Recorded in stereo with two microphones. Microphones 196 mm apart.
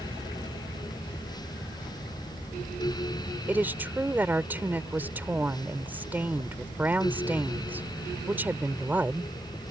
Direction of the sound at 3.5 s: 10° right (ahead or behind).